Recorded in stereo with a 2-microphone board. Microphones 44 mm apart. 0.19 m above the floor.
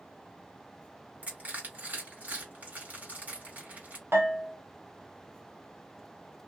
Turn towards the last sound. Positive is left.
turn(degrees=-65)  # may be behind; listen again after turning